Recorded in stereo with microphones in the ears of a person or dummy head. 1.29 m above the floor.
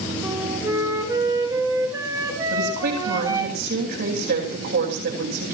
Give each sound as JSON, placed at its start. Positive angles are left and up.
{"t": 0.2, "sound": "a flute", "side_deg": -20, "distance_m": 4.0}
{"t": 2.5, "sound": "a woman speaking", "side_deg": -60, "distance_m": 9.0}